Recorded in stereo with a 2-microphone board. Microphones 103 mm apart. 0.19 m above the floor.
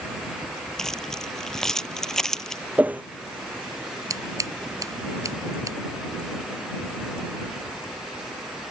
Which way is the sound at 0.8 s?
5° left (ahead or behind).